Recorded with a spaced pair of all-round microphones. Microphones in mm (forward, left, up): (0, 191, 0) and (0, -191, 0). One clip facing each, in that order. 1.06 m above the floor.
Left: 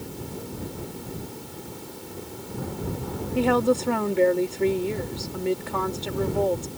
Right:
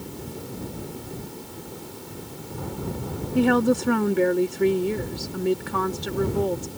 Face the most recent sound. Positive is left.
turn(degrees=-25)  # may be behind; listen again after turning